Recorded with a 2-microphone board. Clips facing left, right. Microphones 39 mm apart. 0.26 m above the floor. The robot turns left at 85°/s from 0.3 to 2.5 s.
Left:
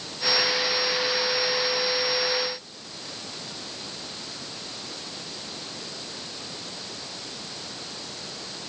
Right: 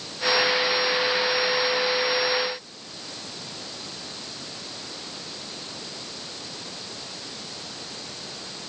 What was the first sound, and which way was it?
Only background noise.